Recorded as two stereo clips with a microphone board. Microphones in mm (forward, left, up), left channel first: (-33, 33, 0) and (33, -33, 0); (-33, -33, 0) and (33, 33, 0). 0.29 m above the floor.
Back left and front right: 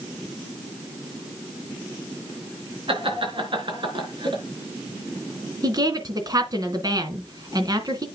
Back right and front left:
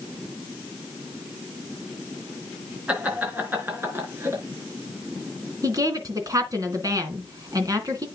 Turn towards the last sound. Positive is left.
turn(degrees=0)